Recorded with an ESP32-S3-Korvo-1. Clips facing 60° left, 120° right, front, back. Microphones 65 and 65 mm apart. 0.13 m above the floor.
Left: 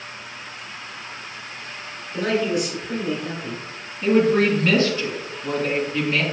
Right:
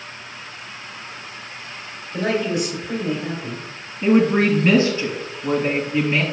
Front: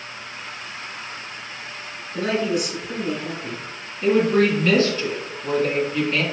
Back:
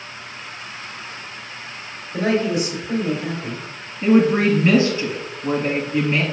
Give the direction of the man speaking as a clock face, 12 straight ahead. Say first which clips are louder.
Even, back 3 dB; 7 o'clock.